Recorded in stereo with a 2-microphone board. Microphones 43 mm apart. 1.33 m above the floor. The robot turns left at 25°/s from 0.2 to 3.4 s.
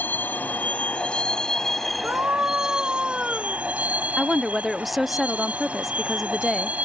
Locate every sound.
0.0 s a vehicle: 45° left; by 6.8 s 35° right
2.0 s a scream: 130° right; by 3.6 s 165° right
4.2 s a woman speaking: centre (ahead or behind)